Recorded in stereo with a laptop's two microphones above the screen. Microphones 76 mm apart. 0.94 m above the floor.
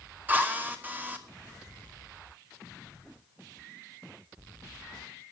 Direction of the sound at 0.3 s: 20° right (ahead or behind).